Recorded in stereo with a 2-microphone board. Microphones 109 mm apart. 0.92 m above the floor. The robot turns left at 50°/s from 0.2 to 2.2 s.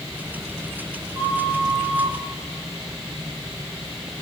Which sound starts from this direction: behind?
A flute, at 1.1 s.